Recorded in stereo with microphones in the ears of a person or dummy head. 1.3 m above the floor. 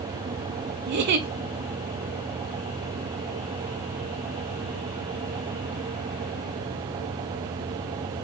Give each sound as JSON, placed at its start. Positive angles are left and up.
{"t": 0.9, "sound": "a giggle", "side_deg": -50, "distance_m": 0.7}